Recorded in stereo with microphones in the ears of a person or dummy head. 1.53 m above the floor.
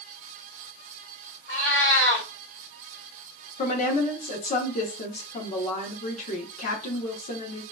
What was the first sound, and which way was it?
A cat meowing, 10° left (ahead or behind).